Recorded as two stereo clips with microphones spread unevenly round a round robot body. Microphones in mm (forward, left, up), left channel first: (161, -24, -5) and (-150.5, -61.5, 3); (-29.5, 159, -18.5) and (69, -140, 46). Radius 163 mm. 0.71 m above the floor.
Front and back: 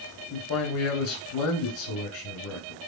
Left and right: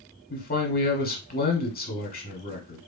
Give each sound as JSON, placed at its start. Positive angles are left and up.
{"t": 0.3, "sound": "a man speaking", "azimuth_deg": 55, "distance_m": 1.4}